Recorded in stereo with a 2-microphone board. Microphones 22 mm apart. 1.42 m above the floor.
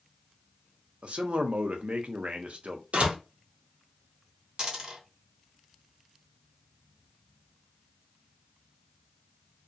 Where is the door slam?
70° right (ahead or behind), 0.7 m.